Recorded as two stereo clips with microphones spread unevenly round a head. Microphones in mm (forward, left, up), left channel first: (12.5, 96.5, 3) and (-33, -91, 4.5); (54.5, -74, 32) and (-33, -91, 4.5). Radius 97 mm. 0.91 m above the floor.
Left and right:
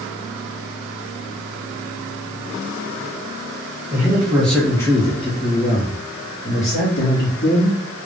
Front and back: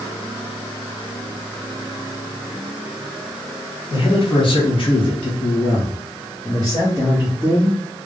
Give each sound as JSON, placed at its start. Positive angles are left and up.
{"t": 3.9, "sound": "a man speaking", "azimuth_deg": -25, "distance_m": 1.5}